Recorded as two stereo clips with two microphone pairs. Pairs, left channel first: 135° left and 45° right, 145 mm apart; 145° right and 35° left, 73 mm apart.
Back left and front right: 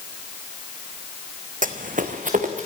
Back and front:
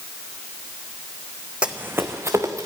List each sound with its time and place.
1.6 s running footsteps: 40° right, 1.0 m; by 2.6 s 10° right, 2 m